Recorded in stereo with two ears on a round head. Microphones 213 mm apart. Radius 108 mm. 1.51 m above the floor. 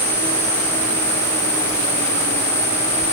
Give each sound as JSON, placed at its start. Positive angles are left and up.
{"t": 0.0, "sound": "an insect", "side_deg": -25, "distance_m": 1.7}